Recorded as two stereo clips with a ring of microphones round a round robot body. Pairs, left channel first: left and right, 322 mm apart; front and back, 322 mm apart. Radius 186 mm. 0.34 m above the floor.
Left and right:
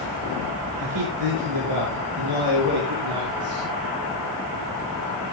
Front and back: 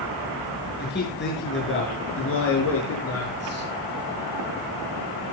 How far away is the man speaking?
About 6 m.